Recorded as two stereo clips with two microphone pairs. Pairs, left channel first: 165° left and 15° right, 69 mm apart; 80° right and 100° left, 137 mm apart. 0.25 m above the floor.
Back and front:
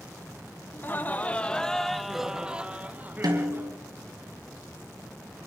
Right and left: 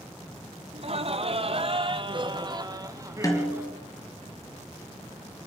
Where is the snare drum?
15° right, 3 m.